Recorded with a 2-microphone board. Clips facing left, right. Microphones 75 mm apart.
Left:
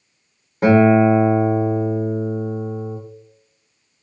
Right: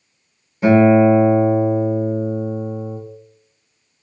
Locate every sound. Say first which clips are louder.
0.6 s a guitar: right 1 dB; 55° left (ahead or behind), 1.0 m